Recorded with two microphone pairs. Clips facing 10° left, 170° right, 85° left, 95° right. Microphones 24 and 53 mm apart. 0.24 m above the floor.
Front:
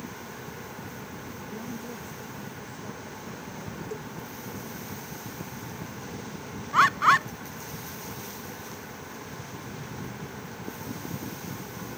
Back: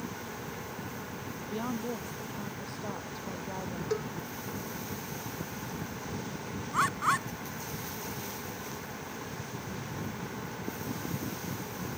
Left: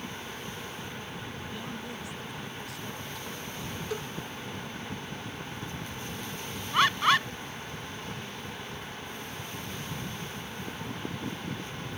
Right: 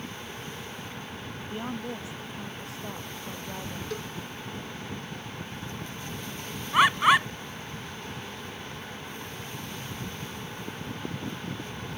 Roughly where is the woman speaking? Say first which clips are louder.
Back 5 dB, right 8 dB; behind right.